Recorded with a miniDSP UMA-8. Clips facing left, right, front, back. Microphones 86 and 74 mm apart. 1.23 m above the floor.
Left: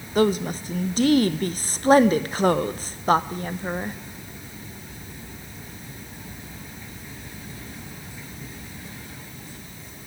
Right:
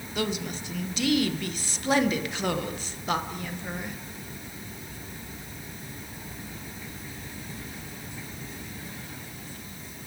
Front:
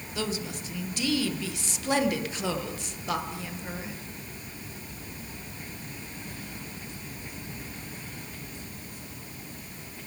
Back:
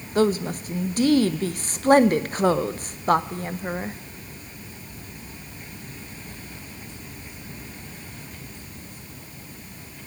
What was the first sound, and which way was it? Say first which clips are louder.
A woman speaking: left 10 dB, back 12 dB; 135° left.